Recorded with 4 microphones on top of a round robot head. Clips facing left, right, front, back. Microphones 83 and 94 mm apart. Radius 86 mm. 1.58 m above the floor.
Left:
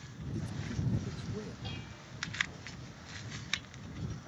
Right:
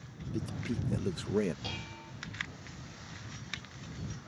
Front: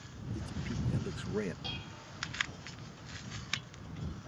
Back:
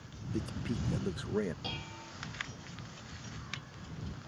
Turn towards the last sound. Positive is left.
turn(degrees=-120)